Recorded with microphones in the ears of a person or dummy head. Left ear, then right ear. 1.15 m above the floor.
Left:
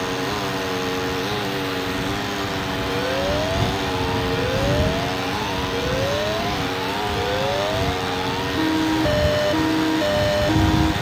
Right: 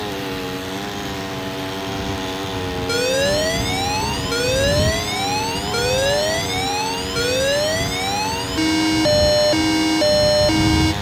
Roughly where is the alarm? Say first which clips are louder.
Right 6 dB; right.